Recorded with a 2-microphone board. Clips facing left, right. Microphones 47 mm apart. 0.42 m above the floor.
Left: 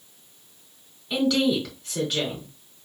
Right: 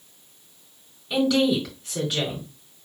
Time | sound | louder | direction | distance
1.1 | a woman speaking | right 1 dB | centre (ahead or behind) | 3 m